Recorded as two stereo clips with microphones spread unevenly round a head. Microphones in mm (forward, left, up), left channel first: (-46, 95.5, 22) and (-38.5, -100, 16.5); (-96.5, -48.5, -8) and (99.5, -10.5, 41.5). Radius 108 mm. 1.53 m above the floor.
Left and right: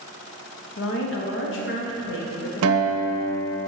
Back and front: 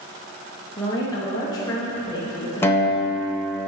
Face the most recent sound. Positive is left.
turn(degrees=-85)